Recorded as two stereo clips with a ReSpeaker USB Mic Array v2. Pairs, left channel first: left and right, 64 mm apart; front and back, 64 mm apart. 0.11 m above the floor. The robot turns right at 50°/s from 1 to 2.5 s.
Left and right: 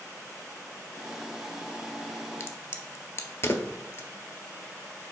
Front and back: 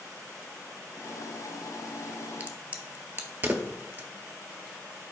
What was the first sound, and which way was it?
A crack, 120° left.